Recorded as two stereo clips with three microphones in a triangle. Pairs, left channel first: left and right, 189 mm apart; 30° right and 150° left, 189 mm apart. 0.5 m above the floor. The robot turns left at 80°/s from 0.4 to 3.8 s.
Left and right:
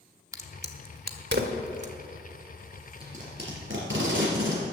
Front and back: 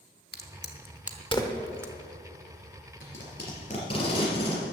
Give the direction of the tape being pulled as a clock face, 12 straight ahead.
1 o'clock.